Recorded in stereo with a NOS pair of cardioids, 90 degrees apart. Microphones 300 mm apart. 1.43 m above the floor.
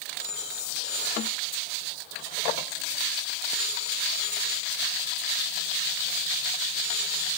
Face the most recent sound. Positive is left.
turn(degrees=30)